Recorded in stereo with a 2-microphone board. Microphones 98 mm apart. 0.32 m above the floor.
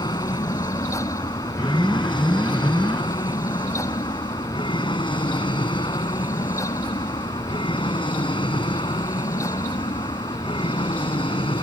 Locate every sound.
0.0 s an aircraft: 50° left (ahead or behind); by 11.6 s 65° left (ahead or behind)
1.6 s an alarm: 5° right (ahead or behind)